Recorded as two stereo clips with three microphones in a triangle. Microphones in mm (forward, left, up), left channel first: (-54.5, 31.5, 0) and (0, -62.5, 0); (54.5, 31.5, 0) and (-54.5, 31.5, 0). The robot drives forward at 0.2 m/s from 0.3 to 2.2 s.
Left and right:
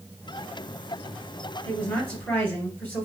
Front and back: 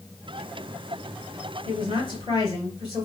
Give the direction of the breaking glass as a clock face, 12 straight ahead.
I don't hear breaking glass.